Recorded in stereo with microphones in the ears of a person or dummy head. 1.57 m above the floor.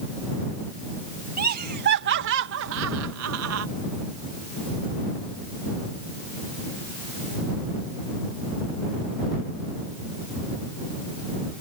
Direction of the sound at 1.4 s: 40° right (ahead or behind).